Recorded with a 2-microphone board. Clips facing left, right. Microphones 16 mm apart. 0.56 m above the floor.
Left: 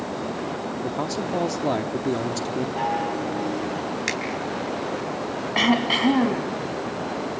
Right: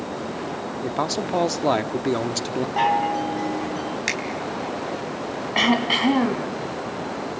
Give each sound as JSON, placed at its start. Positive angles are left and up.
{"t": 0.8, "sound": "a man speaking", "side_deg": -30, "distance_m": 0.8}
{"t": 2.8, "sound": "a chime", "side_deg": -35, "distance_m": 3.5}
{"t": 4.1, "sound": "a finger snap", "side_deg": -10, "distance_m": 3.5}
{"t": 5.5, "sound": "throat clearing", "side_deg": -5, "distance_m": 2.0}